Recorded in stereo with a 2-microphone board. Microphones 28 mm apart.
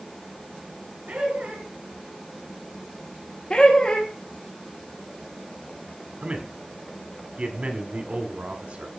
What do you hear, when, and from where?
1.1 s laughter: 45° right (ahead or behind), 6.5 m
3.5 s laughter: 35° left (ahead or behind), 1.6 m
6.2 s a man speaking: 45° right (ahead or behind), 1.8 m